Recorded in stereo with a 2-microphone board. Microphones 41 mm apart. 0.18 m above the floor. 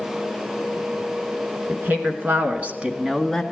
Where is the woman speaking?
55° right (ahead or behind), 2 m; by 3.4 s centre (ahead or behind), 1.2 m.